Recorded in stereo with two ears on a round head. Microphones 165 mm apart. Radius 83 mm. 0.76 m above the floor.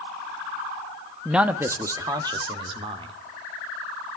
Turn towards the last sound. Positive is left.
turn(degrees=-30)  # may be behind; listen again after turning